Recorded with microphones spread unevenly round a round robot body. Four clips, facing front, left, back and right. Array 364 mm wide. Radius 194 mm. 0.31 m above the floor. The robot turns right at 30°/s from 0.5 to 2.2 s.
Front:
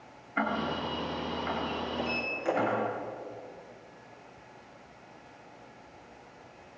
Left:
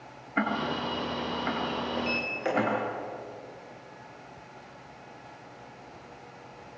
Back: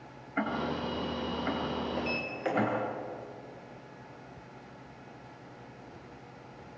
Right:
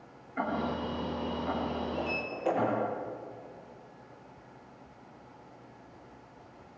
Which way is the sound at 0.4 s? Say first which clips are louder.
Left 3 dB, front 1 dB; 80° left.